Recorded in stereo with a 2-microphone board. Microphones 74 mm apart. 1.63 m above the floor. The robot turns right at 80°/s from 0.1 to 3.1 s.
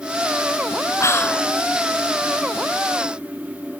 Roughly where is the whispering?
Behind left.